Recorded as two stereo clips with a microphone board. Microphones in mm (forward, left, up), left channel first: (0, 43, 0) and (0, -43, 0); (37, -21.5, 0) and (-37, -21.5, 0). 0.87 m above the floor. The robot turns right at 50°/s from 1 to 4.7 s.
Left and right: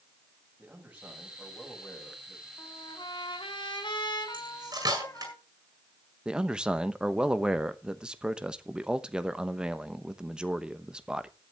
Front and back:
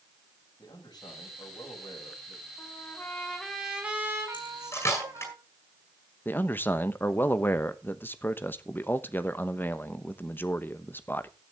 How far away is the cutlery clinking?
About 6.5 m.